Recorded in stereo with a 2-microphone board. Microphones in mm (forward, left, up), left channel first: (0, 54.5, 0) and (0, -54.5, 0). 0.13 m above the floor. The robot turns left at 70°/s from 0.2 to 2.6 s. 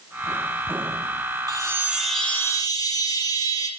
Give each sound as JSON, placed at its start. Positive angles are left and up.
{"t": 1.5, "sound": "a chime", "azimuth_deg": -140, "distance_m": 3.0}